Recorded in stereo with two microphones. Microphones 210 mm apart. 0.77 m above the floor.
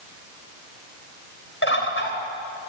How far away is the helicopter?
No helicopter in this recording.